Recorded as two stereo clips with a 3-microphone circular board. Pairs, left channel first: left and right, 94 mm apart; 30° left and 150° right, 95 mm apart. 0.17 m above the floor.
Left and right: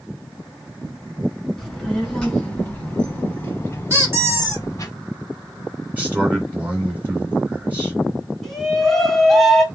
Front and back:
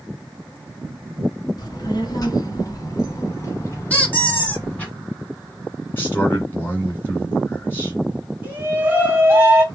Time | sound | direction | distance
1.6 | a child speaking | straight ahead | 1.8 m
3.9 | a squeak | 40° right | 1.2 m
6.0 | a man speaking | 25° right | 2 m
8.4 | a shout | 175° left | 1.7 m